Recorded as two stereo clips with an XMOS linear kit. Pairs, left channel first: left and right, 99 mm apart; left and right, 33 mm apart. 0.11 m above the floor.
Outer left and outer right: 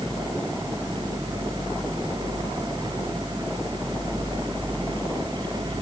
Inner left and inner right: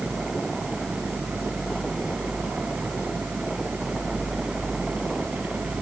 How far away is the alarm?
No alarm in this recording.